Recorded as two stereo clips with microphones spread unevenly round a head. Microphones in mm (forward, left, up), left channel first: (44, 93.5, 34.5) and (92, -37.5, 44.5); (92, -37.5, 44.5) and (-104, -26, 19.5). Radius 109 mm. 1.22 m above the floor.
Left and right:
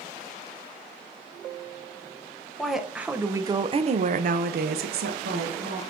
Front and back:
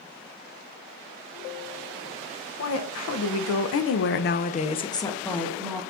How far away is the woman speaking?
About 0.9 m.